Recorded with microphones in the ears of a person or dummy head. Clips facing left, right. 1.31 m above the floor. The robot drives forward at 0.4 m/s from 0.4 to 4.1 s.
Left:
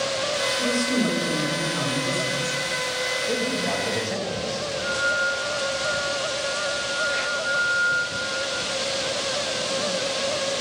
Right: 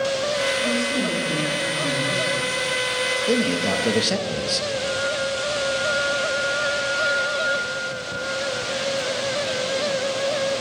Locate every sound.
0.6 s a woman speaking: 45° left (ahead or behind), 5 m; by 2.6 s 55° left (ahead or behind), 4 m
3.3 s a man speaking: 40° right (ahead or behind), 1.5 m; by 4.7 s 50° right (ahead or behind), 1.3 m
4.8 s a flute: 65° left (ahead or behind), 6 m